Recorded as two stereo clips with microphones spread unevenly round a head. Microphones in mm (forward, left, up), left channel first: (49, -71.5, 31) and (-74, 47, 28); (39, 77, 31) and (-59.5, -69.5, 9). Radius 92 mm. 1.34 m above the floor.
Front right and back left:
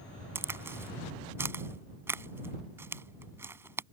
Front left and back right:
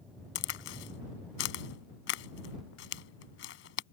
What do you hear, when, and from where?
0.3 s a crack: 60° left